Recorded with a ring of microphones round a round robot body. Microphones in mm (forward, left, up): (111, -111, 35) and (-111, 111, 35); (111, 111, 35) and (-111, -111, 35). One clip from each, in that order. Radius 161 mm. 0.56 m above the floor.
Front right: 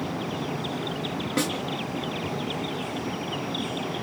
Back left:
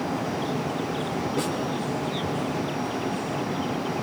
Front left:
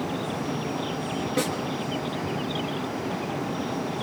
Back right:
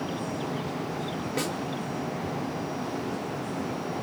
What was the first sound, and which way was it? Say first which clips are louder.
A snare drum: front right 3 dB, front left 4 dB; 35° right.